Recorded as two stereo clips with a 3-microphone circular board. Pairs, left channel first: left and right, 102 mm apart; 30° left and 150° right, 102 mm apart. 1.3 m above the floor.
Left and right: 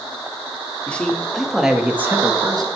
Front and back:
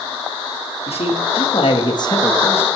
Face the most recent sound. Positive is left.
turn(degrees=-40)